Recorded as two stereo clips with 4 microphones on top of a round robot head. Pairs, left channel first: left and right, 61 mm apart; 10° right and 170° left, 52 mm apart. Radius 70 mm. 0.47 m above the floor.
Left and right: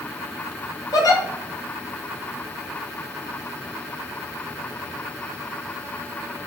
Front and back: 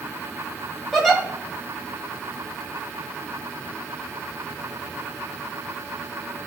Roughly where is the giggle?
Left.